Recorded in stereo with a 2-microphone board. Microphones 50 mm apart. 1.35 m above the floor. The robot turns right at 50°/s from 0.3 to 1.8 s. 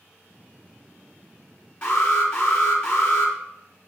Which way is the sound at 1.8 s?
25° left (ahead or behind).